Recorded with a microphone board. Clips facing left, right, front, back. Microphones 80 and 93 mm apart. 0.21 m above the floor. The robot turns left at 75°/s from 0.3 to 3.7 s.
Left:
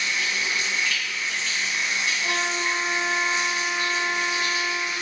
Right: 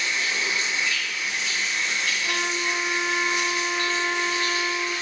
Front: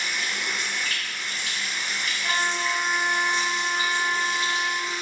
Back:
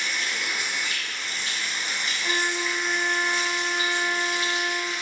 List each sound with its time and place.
0.0 s running water: 80° right, 0.9 m; by 5.0 s 25° left, 0.9 m
2.2 s a trumpet: 120° left, 1.1 m; by 4.9 s 5° left, 1.1 m